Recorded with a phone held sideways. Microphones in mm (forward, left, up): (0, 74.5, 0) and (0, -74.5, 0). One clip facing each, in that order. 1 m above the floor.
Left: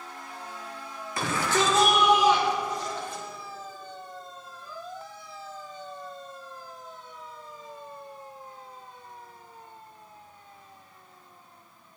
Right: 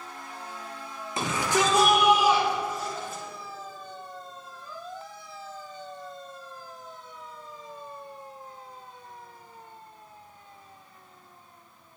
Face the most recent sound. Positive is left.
turn(degrees=-5)  # may be behind; listen again after turning